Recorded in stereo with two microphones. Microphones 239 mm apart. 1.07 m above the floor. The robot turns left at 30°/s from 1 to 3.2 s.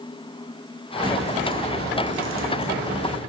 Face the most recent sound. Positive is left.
turn(degrees=-85)